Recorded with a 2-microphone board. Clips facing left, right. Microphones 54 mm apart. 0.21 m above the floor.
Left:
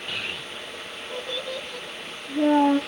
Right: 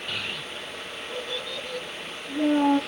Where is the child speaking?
25° left (ahead or behind), 1.1 m; by 2.8 s 45° left (ahead or behind), 1.9 m.